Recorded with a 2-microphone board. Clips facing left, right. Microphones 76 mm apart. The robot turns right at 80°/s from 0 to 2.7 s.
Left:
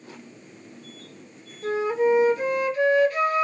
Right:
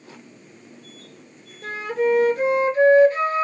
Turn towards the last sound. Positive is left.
turn(degrees=-30)